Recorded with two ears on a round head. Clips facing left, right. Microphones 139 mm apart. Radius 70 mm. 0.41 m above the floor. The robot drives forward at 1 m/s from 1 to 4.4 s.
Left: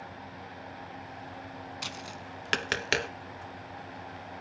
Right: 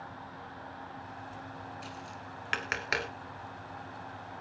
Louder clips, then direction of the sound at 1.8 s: Left 2 dB; 80° left.